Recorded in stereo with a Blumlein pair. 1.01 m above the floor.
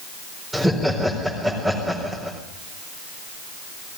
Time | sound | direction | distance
0.5 | laughter | straight ahead | 4 m